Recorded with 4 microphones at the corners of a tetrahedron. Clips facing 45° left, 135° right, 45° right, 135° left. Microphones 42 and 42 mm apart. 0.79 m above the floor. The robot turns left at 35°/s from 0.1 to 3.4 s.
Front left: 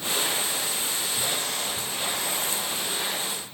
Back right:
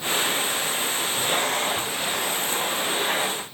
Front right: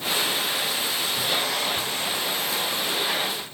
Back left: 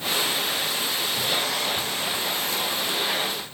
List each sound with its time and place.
Only background noise.